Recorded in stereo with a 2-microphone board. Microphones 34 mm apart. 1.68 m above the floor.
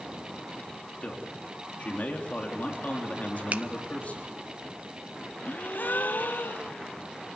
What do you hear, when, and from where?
1.0 s a man speaking: 45° left (ahead or behind), 3.5 m
3.5 s a finger snap: 50° right (ahead or behind), 0.7 m
5.4 s a gasp: 65° left (ahead or behind), 0.8 m